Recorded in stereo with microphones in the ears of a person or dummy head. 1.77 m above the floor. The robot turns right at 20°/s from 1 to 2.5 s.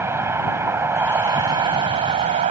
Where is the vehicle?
165° right; by 2.5 s 135° right.